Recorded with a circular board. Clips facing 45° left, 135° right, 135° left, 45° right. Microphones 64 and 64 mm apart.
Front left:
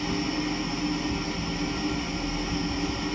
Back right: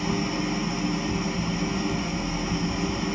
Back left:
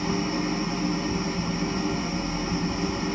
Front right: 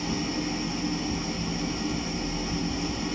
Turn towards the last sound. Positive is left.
turn(degrees=160)